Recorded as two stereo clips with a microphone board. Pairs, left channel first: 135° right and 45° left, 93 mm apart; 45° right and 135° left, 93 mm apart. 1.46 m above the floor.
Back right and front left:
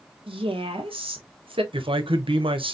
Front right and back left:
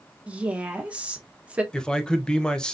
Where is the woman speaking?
60° left, 1.2 m.